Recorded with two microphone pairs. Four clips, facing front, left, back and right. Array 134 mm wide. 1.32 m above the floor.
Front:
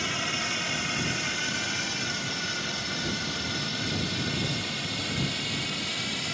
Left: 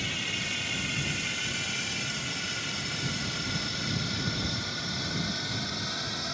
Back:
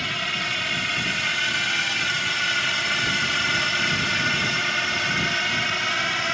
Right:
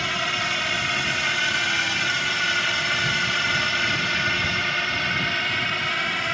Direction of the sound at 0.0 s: 95° right.